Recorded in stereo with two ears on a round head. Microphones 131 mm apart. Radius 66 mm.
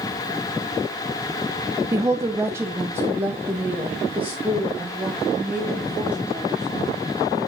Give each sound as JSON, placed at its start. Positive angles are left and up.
{"t": 1.9, "sound": "a woman speaking", "side_deg": -20, "distance_m": 0.8}